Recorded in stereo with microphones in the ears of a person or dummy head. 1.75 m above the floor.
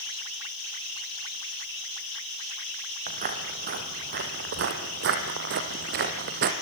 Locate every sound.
3.1 s footsteps: 35° right (ahead or behind), 3 m; by 6.5 s 45° right (ahead or behind), 2.5 m